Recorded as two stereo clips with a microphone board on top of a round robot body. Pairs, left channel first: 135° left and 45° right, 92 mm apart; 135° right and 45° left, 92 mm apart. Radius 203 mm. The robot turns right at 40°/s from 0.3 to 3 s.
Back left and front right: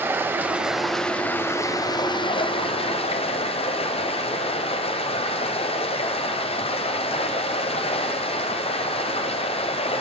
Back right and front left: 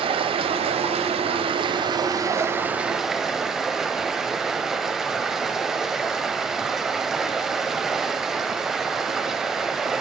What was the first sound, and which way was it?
Running water, 25° left.